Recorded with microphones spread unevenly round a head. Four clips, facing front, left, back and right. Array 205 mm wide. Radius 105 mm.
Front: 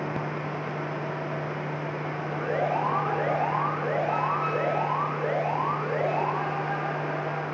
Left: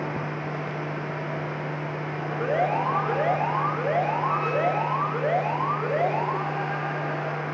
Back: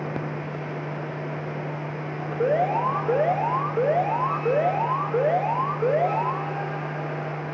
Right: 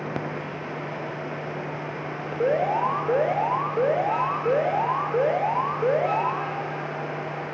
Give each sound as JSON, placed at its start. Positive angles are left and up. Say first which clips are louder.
{"t": 2.4, "sound": "an alarm", "louder": "right 2 dB, back 5 dB", "azimuth_deg": -155, "distance_m": 3.5}